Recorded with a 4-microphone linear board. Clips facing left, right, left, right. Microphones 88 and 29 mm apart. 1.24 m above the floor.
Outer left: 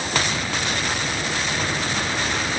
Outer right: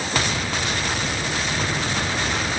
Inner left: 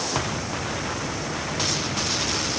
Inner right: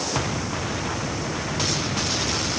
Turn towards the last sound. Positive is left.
No sound to turn to.